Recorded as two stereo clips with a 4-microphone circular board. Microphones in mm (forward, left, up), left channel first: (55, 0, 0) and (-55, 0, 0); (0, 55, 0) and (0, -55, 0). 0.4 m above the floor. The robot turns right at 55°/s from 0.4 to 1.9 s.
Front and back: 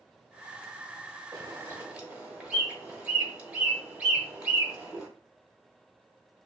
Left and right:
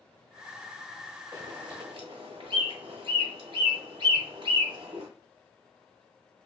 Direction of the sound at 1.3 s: 135° right.